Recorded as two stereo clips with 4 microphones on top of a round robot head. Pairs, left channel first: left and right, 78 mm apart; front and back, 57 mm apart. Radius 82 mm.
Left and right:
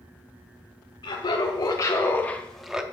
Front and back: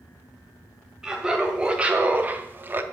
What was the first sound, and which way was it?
Laughter, 100° left.